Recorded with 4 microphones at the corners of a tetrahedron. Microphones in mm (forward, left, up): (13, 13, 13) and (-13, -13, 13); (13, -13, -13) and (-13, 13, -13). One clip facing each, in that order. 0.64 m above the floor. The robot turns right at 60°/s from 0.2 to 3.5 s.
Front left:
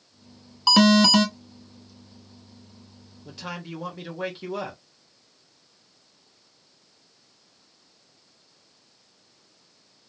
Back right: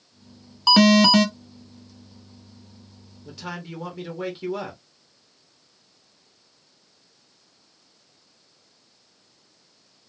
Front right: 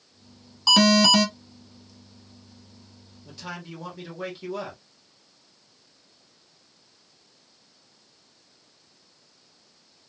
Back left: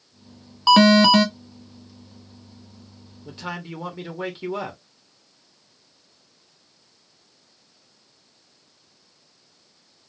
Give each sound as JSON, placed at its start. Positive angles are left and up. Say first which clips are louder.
{"t": 0.7, "sound": "an alarm", "louder": "back right 2 dB, back left 4 dB", "azimuth_deg": 150, "distance_m": 0.9}
{"t": 3.2, "sound": "a man speaking", "louder": "back right 1 dB, back left 5 dB", "azimuth_deg": 120, "distance_m": 1.1}